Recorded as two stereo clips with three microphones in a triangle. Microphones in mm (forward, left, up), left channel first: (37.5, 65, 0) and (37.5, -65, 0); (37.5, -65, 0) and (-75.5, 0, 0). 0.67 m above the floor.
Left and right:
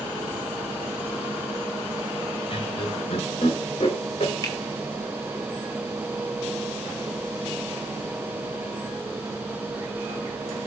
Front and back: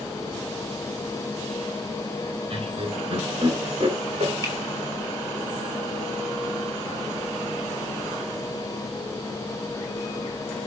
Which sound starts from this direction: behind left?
Laughter, at 2.5 s.